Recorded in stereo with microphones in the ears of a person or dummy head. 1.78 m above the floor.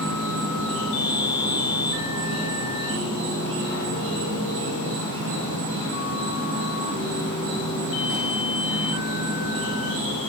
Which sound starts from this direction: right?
An insect, at 0.0 s.